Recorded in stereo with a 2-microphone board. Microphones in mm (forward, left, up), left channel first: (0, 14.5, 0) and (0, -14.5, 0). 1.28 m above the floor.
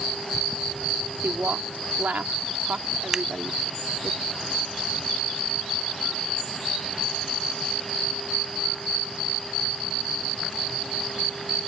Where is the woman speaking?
85° right.